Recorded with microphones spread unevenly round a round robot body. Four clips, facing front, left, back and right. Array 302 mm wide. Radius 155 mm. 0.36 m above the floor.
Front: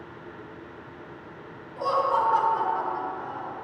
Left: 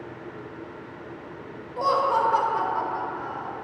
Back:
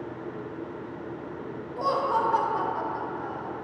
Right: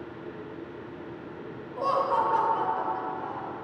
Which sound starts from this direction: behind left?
Laughter, at 1.8 s.